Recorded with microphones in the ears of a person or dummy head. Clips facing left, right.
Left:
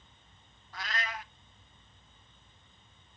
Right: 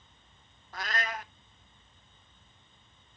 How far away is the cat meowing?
About 0.7 m.